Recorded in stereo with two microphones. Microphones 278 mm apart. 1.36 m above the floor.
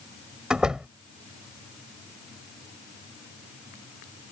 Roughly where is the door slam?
Centre.